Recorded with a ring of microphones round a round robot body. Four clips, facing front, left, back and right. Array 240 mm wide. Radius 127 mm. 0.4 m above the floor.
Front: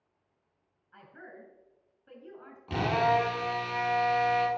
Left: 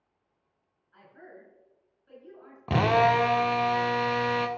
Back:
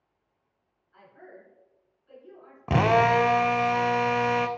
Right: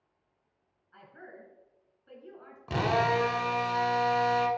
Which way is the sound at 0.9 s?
25° right.